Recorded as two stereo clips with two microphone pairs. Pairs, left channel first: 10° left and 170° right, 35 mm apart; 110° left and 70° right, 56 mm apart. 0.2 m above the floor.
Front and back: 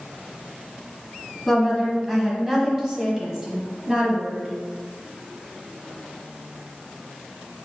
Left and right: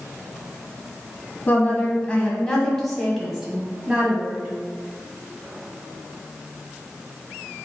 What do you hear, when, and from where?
1.5 s a woman speaking: 100° left, 1.4 m; by 4.5 s 120° right, 1.5 m